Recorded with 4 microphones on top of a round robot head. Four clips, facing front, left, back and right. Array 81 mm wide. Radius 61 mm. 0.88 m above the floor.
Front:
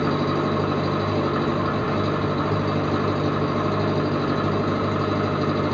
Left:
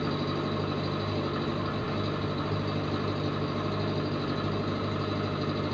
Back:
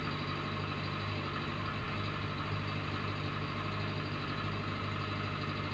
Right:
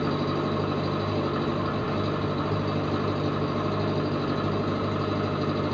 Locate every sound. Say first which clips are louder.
0.0 s an engine running: right 4 dB, front 16 dB; 15° right